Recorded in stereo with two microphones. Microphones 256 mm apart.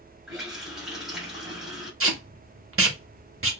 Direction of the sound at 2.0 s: 50° right (ahead or behind).